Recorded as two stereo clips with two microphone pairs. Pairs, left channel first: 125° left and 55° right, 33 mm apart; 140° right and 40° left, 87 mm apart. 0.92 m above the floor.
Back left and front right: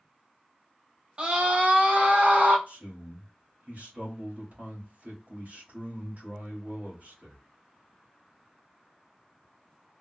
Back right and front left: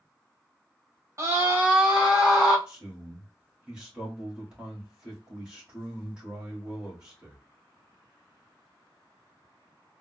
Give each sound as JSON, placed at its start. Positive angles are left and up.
{"t": 1.2, "sound": "a scream", "azimuth_deg": -5, "distance_m": 1.0}
{"t": 2.7, "sound": "a man speaking", "azimuth_deg": -40, "distance_m": 1.9}